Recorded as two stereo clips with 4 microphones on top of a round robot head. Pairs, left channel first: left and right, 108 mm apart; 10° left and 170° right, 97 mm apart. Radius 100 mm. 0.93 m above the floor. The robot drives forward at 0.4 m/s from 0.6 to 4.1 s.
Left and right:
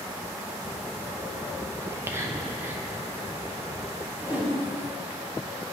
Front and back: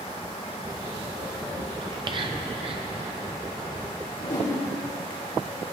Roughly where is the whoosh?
Ahead.